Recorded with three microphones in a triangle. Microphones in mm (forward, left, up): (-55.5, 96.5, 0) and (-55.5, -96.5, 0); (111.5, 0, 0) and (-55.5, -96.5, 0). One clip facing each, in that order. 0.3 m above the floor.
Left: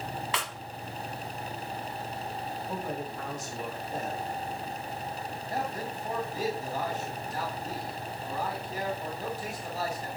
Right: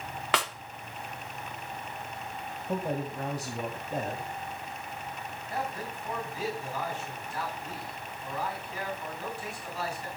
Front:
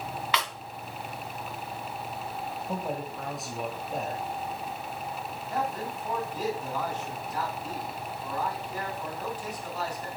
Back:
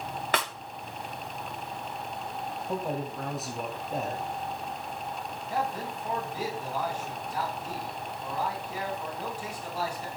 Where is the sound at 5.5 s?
130° left, 3 m.